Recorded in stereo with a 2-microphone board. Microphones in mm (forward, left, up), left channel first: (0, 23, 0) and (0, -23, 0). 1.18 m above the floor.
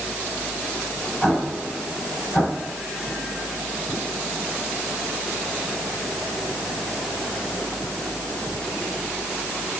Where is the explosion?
25° left (ahead or behind), 6 m.